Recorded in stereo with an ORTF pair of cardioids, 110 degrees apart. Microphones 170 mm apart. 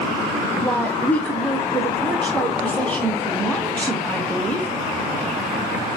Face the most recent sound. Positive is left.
turn(degrees=10)